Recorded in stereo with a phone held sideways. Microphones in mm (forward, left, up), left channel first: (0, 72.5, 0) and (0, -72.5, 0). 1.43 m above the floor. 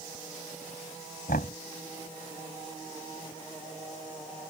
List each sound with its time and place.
1.3 s knocking: 85° left